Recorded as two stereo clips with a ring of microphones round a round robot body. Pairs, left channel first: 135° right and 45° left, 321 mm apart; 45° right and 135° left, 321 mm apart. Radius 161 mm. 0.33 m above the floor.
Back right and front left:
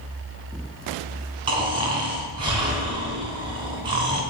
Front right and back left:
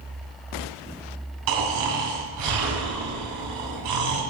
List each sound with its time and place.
1.5 s snoring: 120° left, 2 m